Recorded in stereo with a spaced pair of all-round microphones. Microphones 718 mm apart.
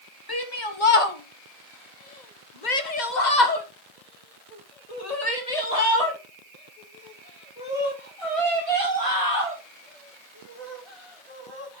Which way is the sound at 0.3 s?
30° left (ahead or behind).